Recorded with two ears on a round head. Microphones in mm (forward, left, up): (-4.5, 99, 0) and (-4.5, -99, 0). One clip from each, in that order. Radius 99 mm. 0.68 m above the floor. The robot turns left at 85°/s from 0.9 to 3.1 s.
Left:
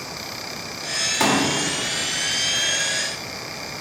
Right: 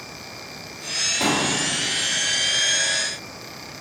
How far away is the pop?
About 1.5 m.